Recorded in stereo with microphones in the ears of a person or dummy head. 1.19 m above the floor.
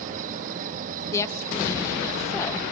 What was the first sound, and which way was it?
An insect, 50° right (ahead or behind).